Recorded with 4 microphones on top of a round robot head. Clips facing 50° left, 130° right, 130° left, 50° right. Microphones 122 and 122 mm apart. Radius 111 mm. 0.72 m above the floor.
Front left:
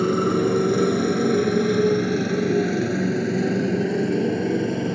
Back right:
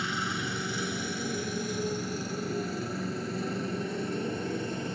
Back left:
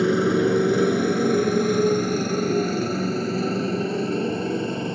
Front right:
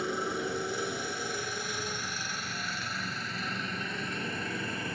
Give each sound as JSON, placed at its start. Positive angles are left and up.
{"t": 0.0, "sound": "a motorcycle", "azimuth_deg": 100}